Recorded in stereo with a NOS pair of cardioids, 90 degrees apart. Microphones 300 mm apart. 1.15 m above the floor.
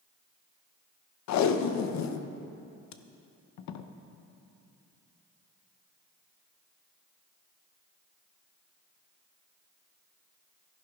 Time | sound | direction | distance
1.3 | tape being pulled | 65° left | 0.7 m